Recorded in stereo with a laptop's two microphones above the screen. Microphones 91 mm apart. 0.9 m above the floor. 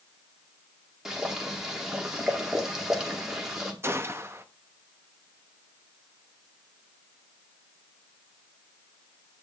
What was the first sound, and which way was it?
Boiling, 5° right (ahead or behind).